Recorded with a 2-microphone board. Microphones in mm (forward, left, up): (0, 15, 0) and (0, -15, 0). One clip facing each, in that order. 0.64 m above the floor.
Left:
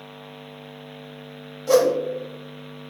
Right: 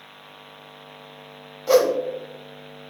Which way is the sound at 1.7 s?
15° right (ahead or behind).